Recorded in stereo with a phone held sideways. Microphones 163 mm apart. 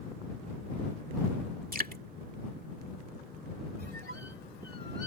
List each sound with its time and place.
1.7 s dripping: 65° right (ahead or behind)
3.8 s a squeak: 80° right